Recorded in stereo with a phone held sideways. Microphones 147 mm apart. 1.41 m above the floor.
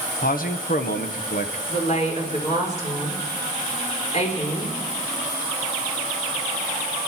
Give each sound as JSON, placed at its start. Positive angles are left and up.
{"t": 0.2, "sound": "a man speaking", "side_deg": 75, "distance_m": 1.3}
{"t": 1.7, "sound": "a woman speaking", "side_deg": 55, "distance_m": 4.5}